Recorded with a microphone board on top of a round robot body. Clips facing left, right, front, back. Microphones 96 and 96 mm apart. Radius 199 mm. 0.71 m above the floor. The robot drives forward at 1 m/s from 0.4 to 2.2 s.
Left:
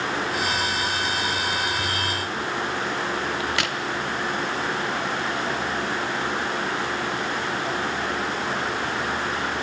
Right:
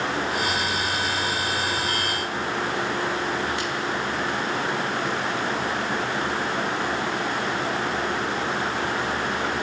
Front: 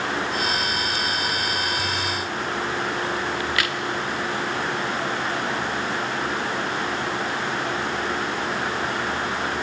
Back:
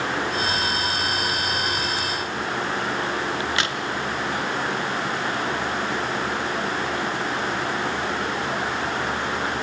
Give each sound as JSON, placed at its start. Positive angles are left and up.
{"t": 3.4, "sound": "a crack", "azimuth_deg": 115, "distance_m": 0.6}